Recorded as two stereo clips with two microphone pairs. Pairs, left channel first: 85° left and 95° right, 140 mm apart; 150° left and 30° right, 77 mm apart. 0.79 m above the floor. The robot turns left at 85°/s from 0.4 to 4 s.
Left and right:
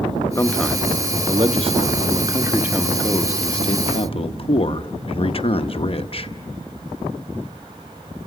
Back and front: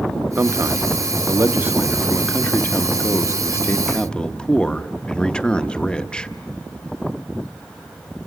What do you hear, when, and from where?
0.4 s a man speaking: 25° left, 0.7 m; by 6.3 s 80° left, 0.7 m